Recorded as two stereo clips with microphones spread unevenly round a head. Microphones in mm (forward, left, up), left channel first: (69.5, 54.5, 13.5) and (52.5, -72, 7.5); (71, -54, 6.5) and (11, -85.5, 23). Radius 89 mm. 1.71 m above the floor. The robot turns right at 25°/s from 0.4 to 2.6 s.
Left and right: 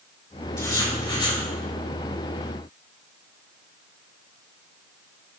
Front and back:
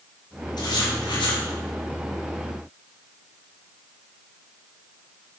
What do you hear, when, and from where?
0.6 s writing: 20° left, 5 m; by 1.4 s 40° left, 5 m